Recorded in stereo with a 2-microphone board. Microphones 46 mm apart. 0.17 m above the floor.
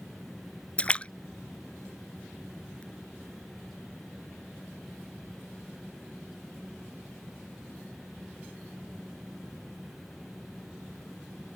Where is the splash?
25° left (ahead or behind).